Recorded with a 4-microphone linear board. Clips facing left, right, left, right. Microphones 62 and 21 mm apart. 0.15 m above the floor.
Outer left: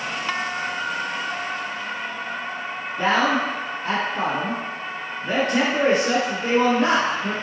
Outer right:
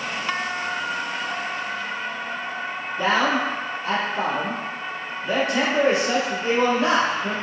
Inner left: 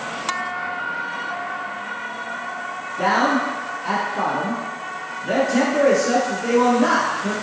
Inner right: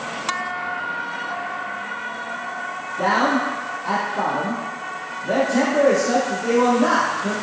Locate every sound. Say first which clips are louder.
3.0 s a man speaking: outer left 1 dB, even; 35° left (ahead or behind), 1.2 m